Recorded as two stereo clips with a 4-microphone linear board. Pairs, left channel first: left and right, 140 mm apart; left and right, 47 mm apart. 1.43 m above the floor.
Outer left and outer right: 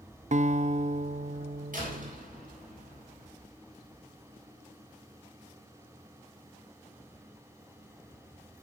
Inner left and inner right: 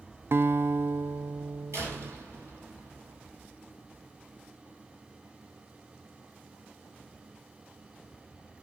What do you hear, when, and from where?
0.3 s a guitar: 55° right (ahead or behind), 0.6 m
1.7 s a door slam: 70° right (ahead or behind), 7 m